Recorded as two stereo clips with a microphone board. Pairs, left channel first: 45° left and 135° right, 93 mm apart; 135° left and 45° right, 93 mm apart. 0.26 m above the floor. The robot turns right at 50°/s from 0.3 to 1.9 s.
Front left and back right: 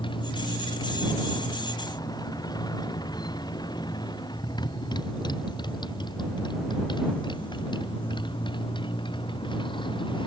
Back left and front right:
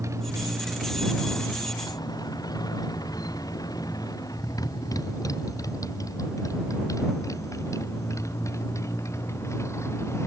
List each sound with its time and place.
0.0 s a motorcycle: 15° left; by 10.3 s 75° left